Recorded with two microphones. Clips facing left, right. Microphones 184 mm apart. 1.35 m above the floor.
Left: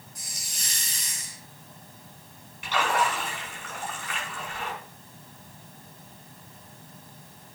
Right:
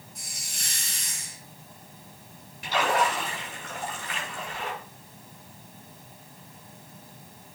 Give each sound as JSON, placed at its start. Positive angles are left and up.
{"t": 0.1, "sound": "a hiss", "side_deg": -60, "distance_m": 5.0}
{"t": 2.6, "sound": "a splash", "side_deg": -35, "distance_m": 7.0}